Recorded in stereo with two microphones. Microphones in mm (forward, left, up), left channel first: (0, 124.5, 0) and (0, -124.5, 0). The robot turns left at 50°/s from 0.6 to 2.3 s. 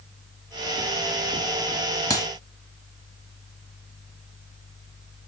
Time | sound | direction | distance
2.1 | a clap | 15° left (ahead or behind) | 1.5 m